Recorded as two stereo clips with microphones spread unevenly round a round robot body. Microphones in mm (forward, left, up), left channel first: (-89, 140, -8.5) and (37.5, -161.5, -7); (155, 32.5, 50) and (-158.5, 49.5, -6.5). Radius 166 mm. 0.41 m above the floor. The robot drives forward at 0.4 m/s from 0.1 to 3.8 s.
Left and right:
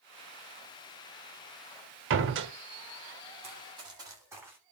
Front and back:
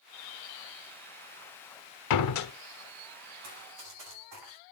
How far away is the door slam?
About 1.0 m.